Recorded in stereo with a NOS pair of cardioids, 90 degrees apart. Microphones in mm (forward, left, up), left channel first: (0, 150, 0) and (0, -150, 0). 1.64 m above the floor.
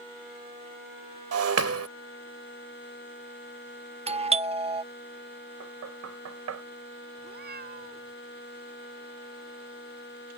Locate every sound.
1.3 s breaking glass: 60° right
4.1 s a doorbell: 20° right
5.6 s knocking: 65° right
7.2 s a cat meowing: 35° right